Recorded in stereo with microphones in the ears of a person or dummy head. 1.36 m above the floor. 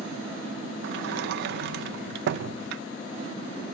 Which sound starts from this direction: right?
A sliding door, at 0.8 s.